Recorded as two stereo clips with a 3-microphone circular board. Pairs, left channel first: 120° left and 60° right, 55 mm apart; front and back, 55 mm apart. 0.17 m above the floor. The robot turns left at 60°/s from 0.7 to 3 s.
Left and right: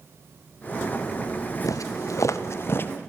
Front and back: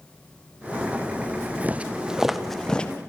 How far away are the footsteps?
About 2.5 m.